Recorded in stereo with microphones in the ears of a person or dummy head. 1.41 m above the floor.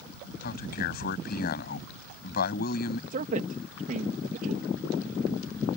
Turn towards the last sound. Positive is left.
turn(degrees=-45)  # may be behind; listen again after turning